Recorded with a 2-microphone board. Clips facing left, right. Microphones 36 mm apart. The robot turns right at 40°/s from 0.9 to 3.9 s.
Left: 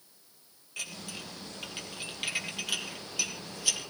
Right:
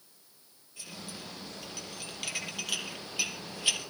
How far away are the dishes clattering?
About 4 m.